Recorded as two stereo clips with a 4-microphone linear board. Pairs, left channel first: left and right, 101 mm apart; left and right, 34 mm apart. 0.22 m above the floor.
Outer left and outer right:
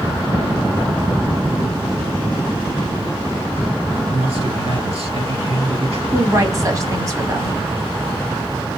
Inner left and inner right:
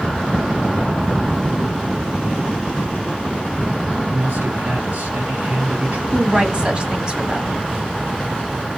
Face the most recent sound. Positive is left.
turn(degrees=-30)  # may be behind; listen again after turning